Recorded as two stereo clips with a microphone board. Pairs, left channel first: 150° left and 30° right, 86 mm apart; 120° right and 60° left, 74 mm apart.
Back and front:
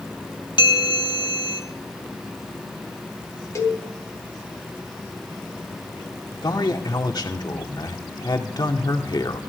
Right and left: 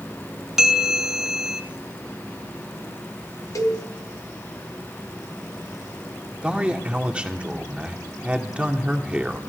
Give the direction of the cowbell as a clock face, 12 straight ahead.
5 o'clock.